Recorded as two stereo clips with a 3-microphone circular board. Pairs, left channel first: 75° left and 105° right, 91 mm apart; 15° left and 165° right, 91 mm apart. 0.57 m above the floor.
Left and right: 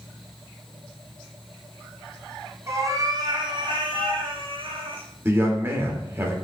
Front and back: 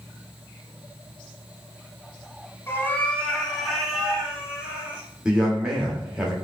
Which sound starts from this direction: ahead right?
A cat meowing, at 2.7 s.